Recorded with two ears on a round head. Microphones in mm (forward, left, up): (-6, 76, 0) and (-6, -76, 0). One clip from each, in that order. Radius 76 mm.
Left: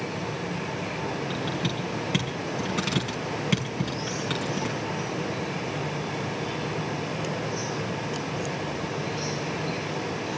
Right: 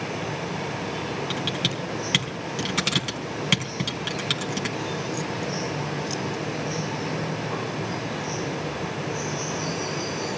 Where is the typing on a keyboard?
70° right (ahead or behind), 4 m.